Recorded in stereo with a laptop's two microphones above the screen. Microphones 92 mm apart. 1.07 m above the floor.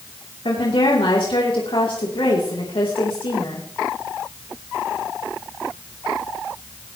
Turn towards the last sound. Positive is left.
turn(degrees=70)  # may be behind; listen again after turning